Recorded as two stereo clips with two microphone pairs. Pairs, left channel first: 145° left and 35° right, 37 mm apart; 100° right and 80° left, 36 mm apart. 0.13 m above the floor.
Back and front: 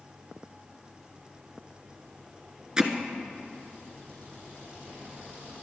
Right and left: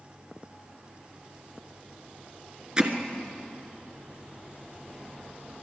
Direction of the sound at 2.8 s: 25° left.